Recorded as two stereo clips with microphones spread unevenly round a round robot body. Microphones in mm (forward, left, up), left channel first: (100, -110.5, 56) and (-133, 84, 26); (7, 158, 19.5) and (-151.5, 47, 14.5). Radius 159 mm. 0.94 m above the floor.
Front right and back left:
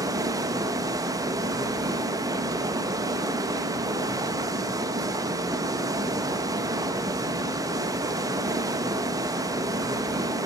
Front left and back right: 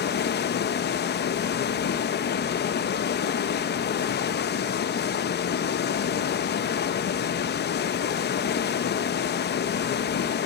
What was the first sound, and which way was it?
Running water, 65° left.